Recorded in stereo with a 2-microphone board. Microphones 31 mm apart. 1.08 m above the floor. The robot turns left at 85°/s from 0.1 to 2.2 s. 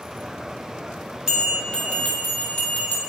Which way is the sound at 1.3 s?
160° right.